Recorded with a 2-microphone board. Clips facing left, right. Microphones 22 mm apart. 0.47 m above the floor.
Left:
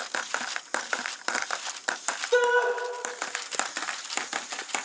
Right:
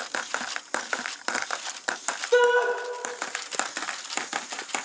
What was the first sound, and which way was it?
A shout, 10° right (ahead or behind).